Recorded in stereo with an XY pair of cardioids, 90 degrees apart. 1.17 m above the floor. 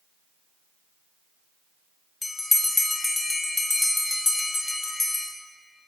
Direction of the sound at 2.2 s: 20° left.